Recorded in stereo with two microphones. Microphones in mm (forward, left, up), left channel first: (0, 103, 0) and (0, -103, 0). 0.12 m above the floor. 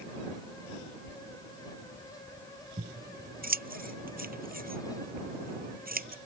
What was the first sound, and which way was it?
Scissors, 45° right (ahead or behind).